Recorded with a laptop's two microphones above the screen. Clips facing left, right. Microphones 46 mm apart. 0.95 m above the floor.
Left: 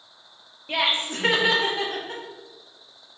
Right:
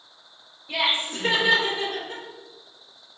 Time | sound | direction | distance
0.7 | laughter | 55° left (ahead or behind) | 1.2 m